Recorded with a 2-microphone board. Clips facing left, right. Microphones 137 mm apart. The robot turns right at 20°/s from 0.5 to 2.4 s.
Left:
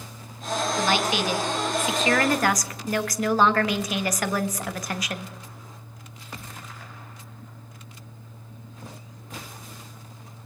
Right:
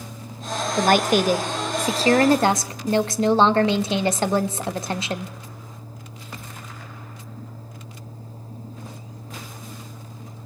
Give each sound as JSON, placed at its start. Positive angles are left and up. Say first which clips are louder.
{"t": 0.8, "sound": "a woman speaking", "louder": "right 9 dB", "azimuth_deg": -65, "distance_m": 0.7}